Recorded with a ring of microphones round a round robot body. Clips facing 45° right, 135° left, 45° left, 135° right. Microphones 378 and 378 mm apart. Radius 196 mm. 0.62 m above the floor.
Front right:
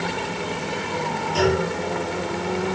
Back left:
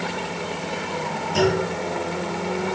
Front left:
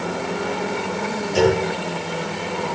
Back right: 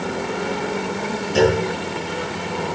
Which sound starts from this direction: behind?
A clunk, at 1.4 s.